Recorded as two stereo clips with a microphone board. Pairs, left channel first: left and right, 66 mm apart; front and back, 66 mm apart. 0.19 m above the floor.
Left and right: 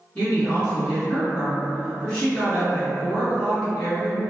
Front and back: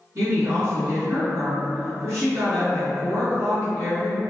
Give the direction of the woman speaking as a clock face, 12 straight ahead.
7 o'clock.